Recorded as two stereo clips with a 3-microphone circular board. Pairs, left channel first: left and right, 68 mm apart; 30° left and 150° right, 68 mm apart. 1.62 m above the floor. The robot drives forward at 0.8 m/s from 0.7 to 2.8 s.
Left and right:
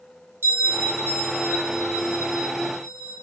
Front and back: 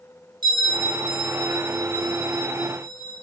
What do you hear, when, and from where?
0.4 s a bell: 145° right, 3 m; by 3.1 s 155° right, 4.5 m